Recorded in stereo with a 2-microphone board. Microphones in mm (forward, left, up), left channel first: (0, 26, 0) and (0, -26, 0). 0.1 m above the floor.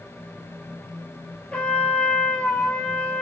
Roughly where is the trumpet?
Left.